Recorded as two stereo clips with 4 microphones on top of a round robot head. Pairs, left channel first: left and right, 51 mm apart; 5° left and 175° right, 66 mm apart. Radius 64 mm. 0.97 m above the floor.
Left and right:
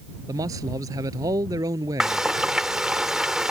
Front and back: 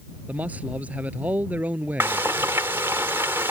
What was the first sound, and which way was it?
A man speaking, 105° right.